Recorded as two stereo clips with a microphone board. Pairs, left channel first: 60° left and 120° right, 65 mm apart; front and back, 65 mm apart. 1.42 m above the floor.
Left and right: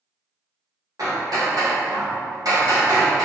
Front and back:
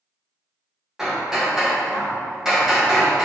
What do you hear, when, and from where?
1.0 s hammering: 100° right, 1.3 m